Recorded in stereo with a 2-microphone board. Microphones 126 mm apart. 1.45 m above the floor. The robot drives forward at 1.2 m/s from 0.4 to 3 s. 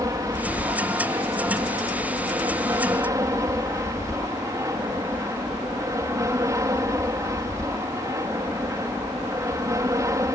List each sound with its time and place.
0.0 s an aircraft: 25° right (ahead or behind)